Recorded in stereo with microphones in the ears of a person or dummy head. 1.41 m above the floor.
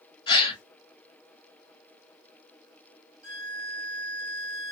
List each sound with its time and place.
0.3 s a gasp: 25° left (ahead or behind), 1.4 m
3.2 s a violin: 35° left (ahead or behind), 2.0 m